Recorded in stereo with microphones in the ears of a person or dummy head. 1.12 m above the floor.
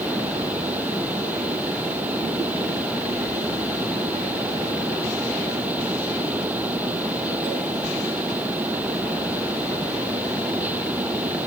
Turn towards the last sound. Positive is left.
turn(degrees=-10)  # may be behind; listen again after turning